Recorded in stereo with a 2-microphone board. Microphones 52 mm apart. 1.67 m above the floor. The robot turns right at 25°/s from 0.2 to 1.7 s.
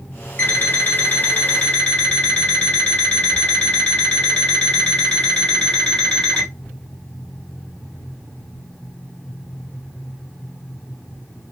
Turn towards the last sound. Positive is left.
turn(degrees=160)